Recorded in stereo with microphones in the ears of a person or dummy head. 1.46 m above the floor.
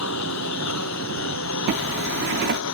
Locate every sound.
0.0 s a lawn mower: 80° left
1.7 s a zipper: 60° right (ahead or behind)